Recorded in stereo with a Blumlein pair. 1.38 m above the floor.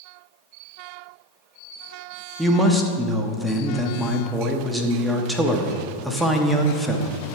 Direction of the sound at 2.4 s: 5° right.